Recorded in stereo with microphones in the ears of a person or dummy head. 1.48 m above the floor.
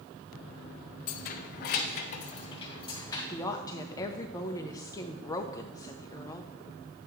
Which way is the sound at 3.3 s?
20° left (ahead or behind).